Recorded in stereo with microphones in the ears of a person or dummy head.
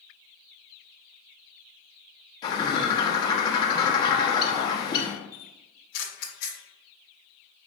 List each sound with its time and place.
2.4 s a bird: 25° left (ahead or behind), 0.5 m
5.3 s a camera shutter: 45° left (ahead or behind), 0.6 m